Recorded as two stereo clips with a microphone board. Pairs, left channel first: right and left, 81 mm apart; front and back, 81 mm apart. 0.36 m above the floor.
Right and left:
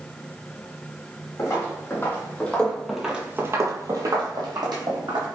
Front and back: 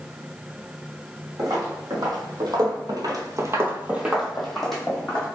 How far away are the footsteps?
About 1.2 m.